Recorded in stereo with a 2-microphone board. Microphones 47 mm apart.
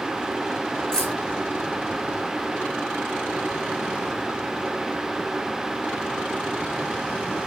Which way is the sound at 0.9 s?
15° left (ahead or behind).